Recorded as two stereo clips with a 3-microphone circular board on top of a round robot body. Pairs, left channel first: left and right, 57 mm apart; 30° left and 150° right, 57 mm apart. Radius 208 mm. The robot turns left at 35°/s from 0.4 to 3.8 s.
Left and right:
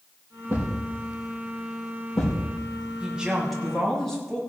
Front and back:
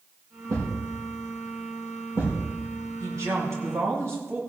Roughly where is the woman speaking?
Behind.